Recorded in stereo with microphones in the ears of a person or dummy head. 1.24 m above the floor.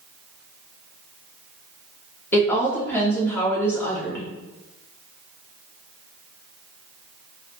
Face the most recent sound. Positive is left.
turn(degrees=10)  # may be behind; listen again after turning